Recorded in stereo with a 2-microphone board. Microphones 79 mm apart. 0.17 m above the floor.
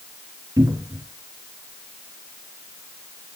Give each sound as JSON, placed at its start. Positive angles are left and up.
{"t": 0.6, "sound": "a cupboard door", "side_deg": -50, "distance_m": 2.5}